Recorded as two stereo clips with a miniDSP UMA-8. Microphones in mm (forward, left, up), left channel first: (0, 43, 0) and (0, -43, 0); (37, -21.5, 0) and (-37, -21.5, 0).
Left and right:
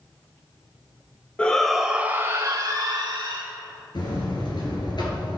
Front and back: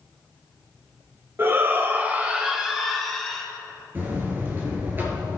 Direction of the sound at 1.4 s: 155° left.